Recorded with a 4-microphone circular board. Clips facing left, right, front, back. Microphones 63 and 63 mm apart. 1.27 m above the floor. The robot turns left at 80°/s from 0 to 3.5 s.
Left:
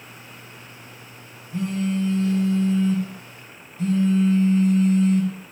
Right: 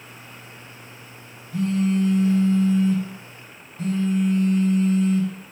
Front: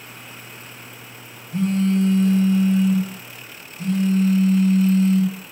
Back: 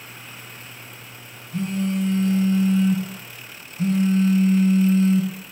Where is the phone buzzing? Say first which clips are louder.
Right 3 dB, front 5 dB; 30° left, 3 m; by 5.3 s 125° right, 3 m.